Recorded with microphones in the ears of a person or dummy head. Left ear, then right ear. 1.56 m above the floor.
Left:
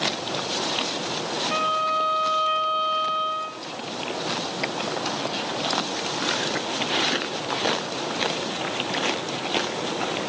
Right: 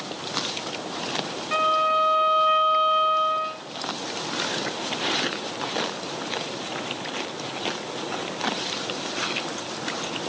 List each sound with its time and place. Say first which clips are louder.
1.5 s a violin: right 4 dB; 20° right (ahead or behind), 0.8 m